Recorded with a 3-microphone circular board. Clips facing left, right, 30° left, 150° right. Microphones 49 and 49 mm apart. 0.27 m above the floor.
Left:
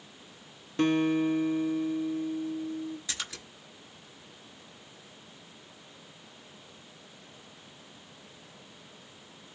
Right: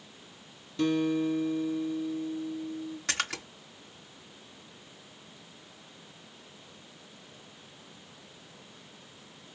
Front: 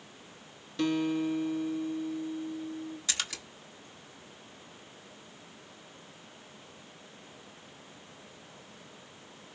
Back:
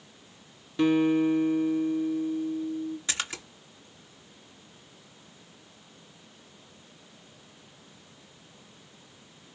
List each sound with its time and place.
0.8 s a guitar: 140° left, 0.9 m
3.1 s a splash: 85° right, 1.6 m